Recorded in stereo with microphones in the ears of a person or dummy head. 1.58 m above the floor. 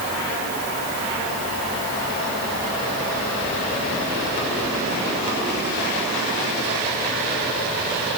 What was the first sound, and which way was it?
Only background noise.